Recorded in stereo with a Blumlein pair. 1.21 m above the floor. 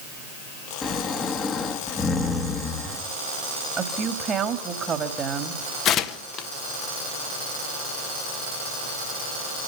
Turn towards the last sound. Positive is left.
turn(degrees=30)